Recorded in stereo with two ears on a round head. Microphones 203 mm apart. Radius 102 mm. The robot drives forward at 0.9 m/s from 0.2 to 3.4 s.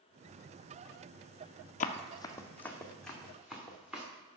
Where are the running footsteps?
35° left (ahead or behind), 0.7 m; by 4.1 s 5° right (ahead or behind), 3 m.